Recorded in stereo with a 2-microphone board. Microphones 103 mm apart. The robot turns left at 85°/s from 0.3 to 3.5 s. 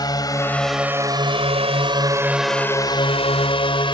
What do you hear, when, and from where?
0.0 s a drone: 40° left (ahead or behind); by 4.0 s 55° left (ahead or behind)